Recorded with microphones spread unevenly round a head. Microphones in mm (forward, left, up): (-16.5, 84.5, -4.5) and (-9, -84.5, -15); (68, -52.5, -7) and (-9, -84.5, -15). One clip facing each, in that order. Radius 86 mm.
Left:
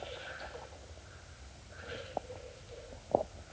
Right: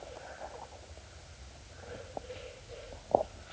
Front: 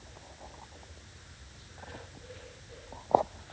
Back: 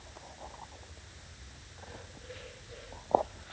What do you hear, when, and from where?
Only background noise.